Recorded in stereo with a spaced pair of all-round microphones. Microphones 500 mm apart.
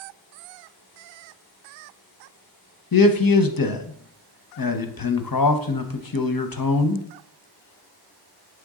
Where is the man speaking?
45° left (ahead or behind), 0.7 m.